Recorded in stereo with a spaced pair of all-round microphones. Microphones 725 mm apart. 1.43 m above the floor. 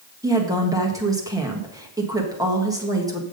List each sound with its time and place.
0.2 s a woman speaking: 5° right (ahead or behind), 1.6 m